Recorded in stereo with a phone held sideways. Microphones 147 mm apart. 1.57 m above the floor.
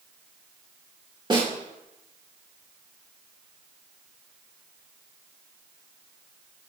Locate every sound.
1.3 s a snare drum: 30° right (ahead or behind), 2.5 m